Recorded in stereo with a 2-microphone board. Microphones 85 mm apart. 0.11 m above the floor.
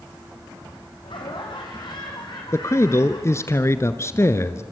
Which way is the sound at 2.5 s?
35° left (ahead or behind).